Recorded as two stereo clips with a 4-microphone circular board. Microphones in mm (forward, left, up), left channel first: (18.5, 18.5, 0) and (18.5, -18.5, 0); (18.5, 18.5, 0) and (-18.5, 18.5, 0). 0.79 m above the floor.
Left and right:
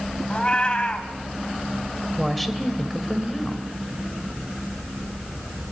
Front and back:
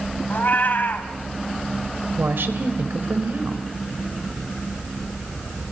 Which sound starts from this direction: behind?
A woman speaking, at 2.2 s.